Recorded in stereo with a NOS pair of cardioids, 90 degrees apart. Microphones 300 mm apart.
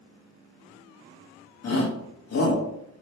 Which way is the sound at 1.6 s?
50° left.